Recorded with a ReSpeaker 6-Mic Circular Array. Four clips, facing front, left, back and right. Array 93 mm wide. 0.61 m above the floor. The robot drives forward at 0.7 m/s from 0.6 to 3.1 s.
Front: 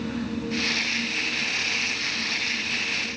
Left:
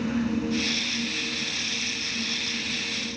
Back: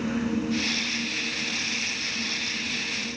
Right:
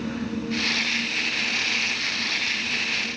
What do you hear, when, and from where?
Only background noise.